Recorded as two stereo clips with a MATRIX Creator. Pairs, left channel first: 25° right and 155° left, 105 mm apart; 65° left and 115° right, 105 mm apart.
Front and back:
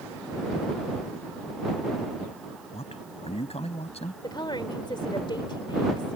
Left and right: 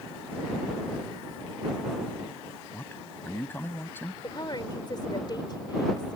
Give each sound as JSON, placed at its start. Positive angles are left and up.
{"t": 2.7, "sound": "a man speaking", "azimuth_deg": -5}
{"t": 4.2, "sound": "a woman speaking", "azimuth_deg": 20}